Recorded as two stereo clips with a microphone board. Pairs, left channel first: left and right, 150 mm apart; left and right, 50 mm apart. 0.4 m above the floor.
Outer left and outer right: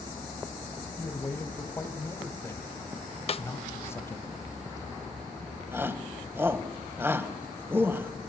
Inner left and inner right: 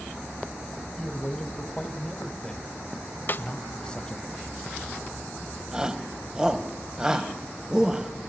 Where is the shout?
15° right (ahead or behind), 2 m.